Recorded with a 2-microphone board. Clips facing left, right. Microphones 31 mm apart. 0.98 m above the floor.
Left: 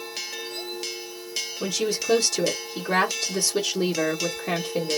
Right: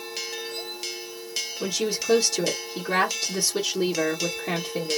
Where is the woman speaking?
10° right (ahead or behind), 1.0 m.